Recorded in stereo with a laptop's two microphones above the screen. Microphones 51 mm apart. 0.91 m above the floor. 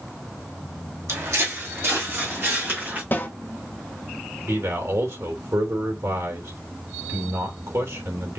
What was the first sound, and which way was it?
Footsteps, 65° right (ahead or behind).